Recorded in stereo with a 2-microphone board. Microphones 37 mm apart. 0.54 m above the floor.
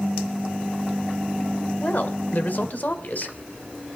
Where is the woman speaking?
55° left (ahead or behind), 2.0 m.